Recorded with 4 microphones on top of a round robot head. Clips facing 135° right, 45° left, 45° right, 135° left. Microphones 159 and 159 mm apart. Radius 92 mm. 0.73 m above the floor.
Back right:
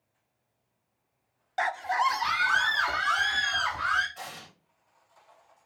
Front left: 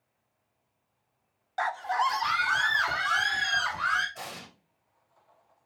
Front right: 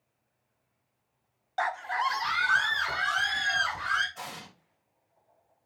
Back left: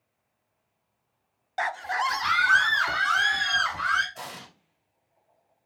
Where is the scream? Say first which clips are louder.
Back right 1 dB, back left 1 dB; 175° right, 0.5 m; by 4.0 s 130° left, 3 m.